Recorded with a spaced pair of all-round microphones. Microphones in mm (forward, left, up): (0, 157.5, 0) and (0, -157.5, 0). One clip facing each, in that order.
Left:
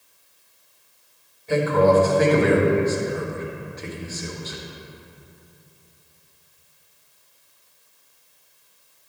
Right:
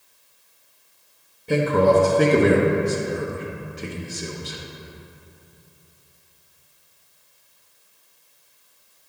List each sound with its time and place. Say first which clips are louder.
1.5 s a man speaking: even; 40° right (ahead or behind), 1.1 m